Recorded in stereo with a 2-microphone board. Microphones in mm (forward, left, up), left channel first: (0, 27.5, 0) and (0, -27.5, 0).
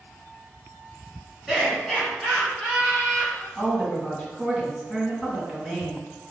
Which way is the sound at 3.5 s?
5° left (ahead or behind).